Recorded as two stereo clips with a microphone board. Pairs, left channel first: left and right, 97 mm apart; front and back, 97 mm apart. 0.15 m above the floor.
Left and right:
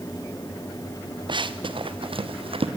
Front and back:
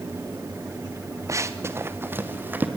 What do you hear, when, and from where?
1.3 s running footsteps: 125° right, 1.3 m; by 2.7 s 110° right, 2.5 m